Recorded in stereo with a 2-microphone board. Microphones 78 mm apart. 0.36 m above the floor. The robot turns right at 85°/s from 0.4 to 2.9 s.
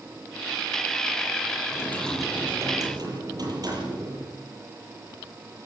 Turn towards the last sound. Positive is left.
turn(degrees=-120)